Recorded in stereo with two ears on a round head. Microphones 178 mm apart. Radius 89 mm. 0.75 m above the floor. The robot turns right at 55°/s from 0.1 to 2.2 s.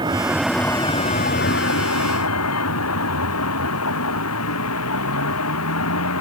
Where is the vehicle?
20° right (ahead or behind); by 6.2 s 80° left.